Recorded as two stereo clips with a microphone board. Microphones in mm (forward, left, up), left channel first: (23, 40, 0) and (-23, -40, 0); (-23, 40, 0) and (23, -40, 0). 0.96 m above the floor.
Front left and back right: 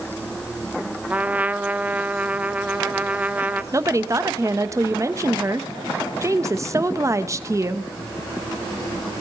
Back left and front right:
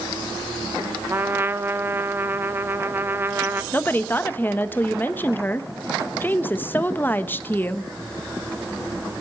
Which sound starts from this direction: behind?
A woman speaking, at 3.7 s.